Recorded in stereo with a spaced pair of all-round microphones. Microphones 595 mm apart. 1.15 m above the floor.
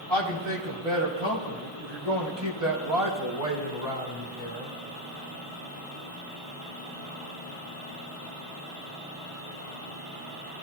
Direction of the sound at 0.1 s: 55° right (ahead or behind).